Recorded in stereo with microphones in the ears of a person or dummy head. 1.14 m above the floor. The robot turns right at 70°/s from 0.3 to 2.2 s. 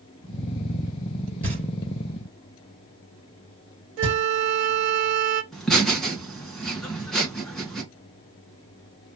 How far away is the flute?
About 1.1 m.